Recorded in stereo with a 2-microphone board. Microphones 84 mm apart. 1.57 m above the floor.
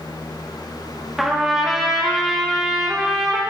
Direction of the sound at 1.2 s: 5° right (ahead or behind).